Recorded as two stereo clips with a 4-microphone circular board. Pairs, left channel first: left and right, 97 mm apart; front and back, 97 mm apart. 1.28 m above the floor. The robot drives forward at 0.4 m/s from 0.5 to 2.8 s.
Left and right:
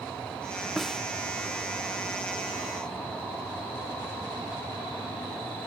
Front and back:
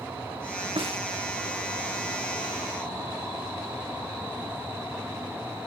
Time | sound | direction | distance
0.8 | a snare drum | straight behind | ?